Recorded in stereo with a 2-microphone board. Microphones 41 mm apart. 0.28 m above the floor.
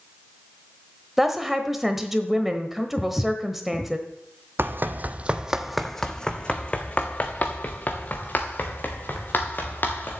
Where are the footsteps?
5° left (ahead or behind), 1.0 m.